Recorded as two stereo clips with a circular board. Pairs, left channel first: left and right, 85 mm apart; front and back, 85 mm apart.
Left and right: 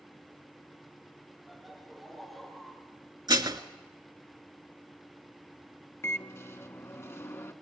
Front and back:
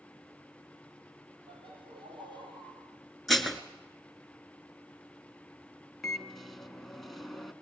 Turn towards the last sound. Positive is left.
turn(degrees=90)